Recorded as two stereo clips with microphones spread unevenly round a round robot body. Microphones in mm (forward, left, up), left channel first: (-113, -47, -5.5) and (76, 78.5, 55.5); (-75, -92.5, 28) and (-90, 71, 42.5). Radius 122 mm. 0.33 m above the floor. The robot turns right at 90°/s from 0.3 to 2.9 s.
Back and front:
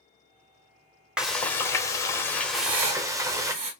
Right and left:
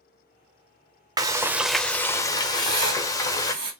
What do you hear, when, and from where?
1.2 s frying: 145° left, 0.6 m; by 3.5 s 60° right, 0.6 m
2.5 s writing: 30° left, 1.8 m; by 3.7 s 60° left, 1.8 m